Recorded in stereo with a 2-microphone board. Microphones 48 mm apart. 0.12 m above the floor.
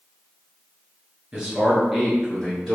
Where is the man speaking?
15° right (ahead or behind), 1.4 m; by 2.8 s 20° left (ahead or behind), 1.7 m.